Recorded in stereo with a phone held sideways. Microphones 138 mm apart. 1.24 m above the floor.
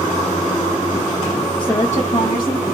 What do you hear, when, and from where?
1.6 s a woman speaking: 10° left (ahead or behind), 0.5 m; by 2.6 s 80° left, 1.4 m